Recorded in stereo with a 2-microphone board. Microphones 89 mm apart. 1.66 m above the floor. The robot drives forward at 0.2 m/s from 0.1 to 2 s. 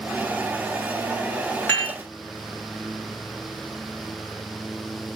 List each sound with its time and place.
1.7 s dishes clattering: 15° left (ahead or behind), 1.6 m